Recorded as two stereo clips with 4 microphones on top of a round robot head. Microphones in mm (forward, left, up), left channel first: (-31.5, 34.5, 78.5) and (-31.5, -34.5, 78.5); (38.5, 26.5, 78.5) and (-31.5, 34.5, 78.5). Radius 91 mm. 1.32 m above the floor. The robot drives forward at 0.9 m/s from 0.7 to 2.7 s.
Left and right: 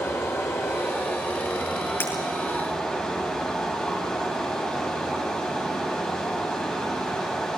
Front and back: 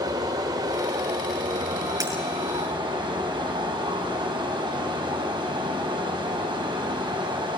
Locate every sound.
0.0 s running water: 145° left, 1.7 m; by 7.6 s 165° left, 3 m
2.0 s breaking glass: 145° left, 6 m